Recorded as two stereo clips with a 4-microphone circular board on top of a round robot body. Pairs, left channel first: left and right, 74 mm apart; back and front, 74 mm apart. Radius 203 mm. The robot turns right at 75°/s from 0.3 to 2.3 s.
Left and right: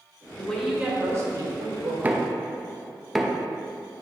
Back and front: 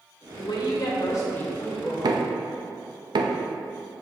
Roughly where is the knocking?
Ahead right.